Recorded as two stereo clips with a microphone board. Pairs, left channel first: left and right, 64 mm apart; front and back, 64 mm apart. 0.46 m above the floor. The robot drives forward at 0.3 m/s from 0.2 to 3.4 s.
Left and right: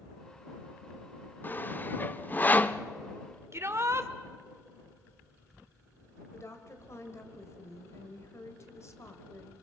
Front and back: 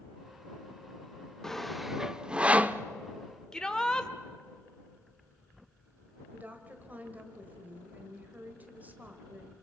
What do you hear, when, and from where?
1.4 s sawing: 75° left, 0.6 m; by 2.8 s 135° left, 0.7 m
3.5 s a shout: 75° right, 1.1 m
6.3 s a woman speaking: 120° left, 2 m